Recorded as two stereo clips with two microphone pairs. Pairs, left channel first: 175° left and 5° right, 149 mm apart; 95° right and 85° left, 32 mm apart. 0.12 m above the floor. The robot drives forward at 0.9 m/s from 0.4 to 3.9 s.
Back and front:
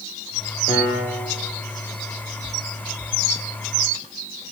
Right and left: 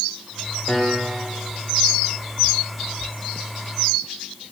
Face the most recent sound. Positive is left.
turn(degrees=-175)